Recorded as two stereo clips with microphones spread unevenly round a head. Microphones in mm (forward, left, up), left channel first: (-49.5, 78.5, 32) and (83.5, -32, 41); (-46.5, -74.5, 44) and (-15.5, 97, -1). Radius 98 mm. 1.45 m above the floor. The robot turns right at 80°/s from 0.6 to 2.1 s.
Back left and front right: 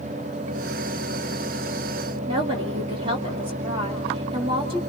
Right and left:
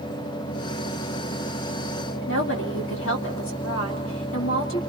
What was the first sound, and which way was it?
A woman speaking, 105° right.